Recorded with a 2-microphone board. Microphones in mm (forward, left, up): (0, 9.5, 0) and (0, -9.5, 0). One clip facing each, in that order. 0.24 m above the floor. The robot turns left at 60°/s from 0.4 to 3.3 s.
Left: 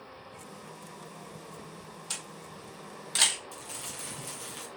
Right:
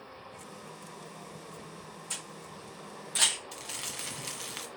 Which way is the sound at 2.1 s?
55° left (ahead or behind).